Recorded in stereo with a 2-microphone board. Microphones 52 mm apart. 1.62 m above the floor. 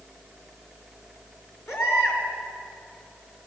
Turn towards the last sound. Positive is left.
turn(degrees=70)  # may be behind; listen again after turning